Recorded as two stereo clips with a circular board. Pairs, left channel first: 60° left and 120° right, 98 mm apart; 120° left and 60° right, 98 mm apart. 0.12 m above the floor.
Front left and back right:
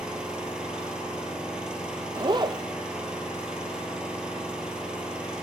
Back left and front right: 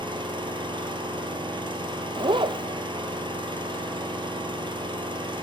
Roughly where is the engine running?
Ahead right.